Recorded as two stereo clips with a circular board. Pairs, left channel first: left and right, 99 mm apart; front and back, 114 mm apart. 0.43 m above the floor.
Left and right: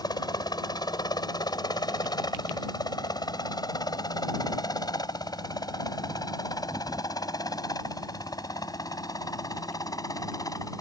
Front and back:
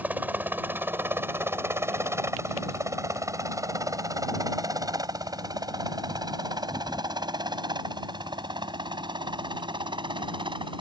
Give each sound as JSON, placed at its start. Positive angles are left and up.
{"t": 0.0, "sound": "a helicopter", "azimuth_deg": 110}